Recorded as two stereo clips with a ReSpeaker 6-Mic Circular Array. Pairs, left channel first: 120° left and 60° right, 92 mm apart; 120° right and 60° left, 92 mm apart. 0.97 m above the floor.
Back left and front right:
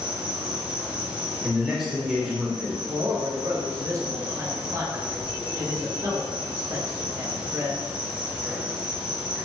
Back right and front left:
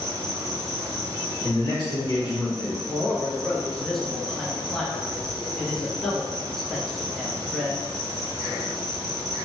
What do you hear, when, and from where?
0.0 s an insect: 15° left, 0.9 m
1.4 s a man speaking: 145° right, 0.9 m
2.8 s a man speaking: 35° right, 0.8 m